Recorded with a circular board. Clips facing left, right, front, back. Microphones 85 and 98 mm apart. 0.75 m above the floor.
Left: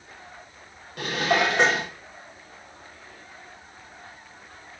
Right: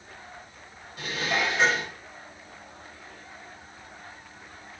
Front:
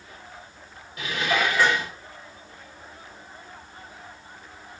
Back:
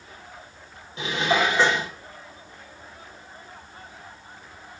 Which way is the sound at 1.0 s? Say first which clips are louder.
Left 5 dB, back 2 dB; 115° left.